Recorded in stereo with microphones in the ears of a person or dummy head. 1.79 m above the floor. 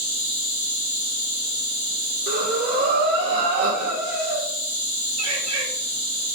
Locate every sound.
0.0 s an insect: 65° right (ahead or behind), 1.6 m
2.3 s breathing: 60° right (ahead or behind), 1.4 m
5.2 s a bird: 40° right (ahead or behind), 2 m